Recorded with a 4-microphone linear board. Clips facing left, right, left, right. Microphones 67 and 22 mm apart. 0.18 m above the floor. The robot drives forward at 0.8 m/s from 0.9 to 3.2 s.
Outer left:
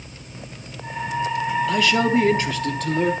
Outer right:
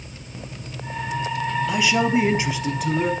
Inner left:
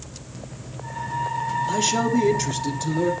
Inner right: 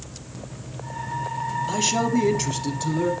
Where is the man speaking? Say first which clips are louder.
Outer left 1 dB, even; 15° right (ahead or behind), 1.0 m; by 3.1 s 10° right (ahead or behind), 1.4 m.